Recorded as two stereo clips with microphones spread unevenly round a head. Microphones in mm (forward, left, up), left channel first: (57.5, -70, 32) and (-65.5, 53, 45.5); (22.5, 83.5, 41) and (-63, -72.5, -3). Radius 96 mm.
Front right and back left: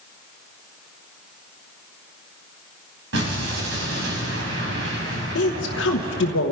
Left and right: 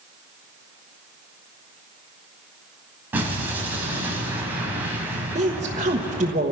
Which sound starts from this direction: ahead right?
A woman speaking, at 5.3 s.